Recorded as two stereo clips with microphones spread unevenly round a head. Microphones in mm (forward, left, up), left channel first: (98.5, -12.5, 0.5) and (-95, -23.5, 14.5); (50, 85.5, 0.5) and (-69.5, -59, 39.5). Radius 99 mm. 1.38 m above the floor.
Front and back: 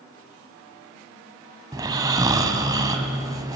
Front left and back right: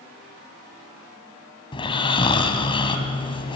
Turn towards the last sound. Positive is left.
turn(degrees=120)